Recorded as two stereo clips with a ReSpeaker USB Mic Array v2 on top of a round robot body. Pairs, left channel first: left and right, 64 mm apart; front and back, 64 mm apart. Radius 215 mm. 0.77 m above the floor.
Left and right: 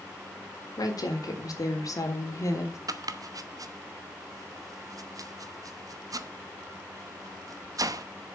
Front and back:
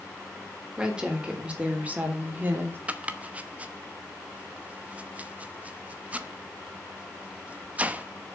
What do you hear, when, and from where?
0.8 s a woman speaking: 100° left, 3.5 m; by 2.8 s 125° left, 3 m
2.9 s chopping: 110° right, 1.0 m